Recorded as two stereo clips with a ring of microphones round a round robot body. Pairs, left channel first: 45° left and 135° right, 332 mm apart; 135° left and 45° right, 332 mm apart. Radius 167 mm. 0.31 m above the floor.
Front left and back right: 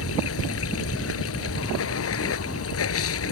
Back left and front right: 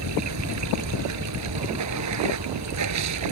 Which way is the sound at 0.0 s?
5° right.